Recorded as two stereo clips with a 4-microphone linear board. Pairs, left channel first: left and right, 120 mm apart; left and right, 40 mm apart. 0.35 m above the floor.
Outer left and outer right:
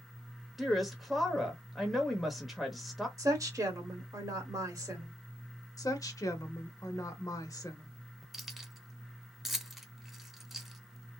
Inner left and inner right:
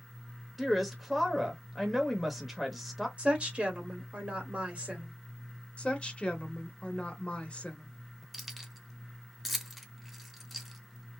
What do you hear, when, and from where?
0.6 s a woman speaking: centre (ahead or behind), 0.9 m
3.2 s a woman speaking: 30° right (ahead or behind), 1.5 m
5.8 s a woman speaking: 30° left (ahead or behind), 0.9 m
8.3 s keys jangling: centre (ahead or behind), 0.7 m